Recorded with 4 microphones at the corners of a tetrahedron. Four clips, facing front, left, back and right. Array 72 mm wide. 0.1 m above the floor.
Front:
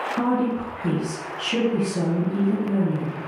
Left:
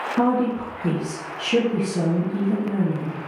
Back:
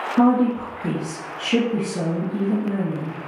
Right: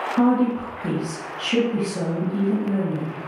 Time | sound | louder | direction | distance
0.2 | a woman speaking | right 2 dB, back 7 dB | 150° left | 1.7 m